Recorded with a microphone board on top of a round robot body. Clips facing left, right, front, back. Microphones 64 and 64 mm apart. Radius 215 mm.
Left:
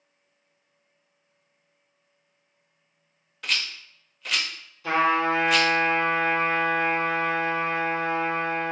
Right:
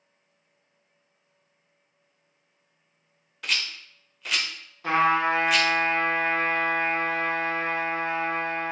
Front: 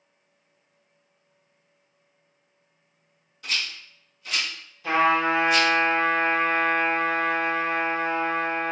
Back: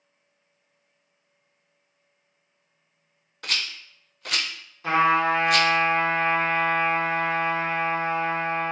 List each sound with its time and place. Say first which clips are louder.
3.4 s a rattle: even, even; straight behind, 0.5 m
4.8 s a trumpet: even, back 1 dB; 130° right, 1.4 m